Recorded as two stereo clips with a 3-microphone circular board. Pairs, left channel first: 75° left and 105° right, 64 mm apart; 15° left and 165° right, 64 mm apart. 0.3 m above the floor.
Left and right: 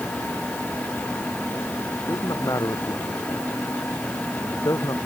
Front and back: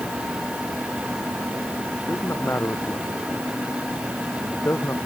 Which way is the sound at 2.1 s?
65° left.